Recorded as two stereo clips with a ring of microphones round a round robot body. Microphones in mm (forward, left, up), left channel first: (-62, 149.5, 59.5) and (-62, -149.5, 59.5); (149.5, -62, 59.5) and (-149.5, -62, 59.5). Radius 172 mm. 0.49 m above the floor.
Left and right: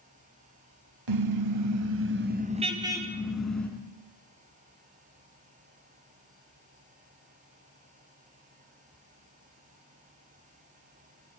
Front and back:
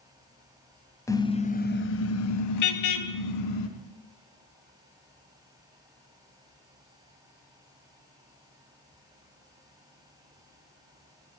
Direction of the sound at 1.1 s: 80° right.